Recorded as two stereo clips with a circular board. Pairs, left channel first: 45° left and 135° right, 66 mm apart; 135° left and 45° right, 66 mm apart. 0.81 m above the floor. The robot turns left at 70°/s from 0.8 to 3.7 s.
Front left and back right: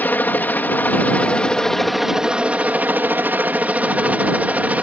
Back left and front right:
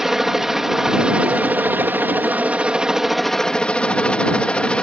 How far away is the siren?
No siren in this recording.